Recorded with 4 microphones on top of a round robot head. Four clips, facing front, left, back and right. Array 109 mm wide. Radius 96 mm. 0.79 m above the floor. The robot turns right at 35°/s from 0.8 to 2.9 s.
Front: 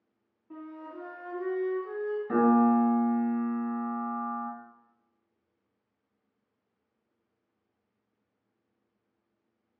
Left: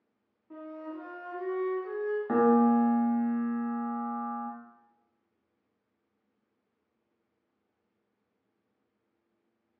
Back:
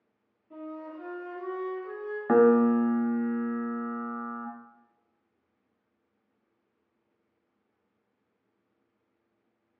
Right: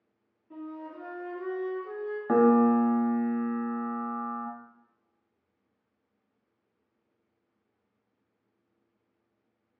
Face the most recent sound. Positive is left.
turn(degrees=-145)